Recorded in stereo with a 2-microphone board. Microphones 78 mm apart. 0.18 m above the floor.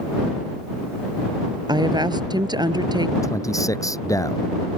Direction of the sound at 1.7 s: 70° right (ahead or behind).